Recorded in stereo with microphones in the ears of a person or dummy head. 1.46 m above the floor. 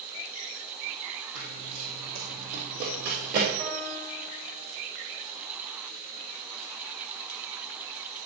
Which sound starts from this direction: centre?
A piano, at 3.6 s.